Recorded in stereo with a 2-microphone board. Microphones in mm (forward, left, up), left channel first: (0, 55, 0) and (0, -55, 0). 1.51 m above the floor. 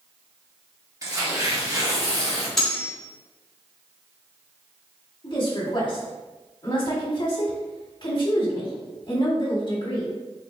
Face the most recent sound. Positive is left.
turn(degrees=45)  # may be behind; listen again after turning